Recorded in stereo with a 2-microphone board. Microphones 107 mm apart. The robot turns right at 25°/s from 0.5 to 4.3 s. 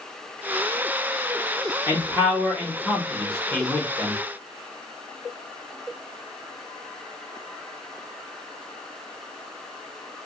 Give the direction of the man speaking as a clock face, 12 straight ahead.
1 o'clock.